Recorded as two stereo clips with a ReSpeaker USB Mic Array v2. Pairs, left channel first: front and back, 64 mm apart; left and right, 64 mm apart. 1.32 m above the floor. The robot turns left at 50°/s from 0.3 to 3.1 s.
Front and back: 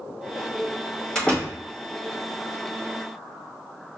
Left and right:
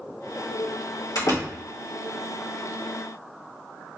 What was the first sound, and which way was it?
A door slam, 80° left.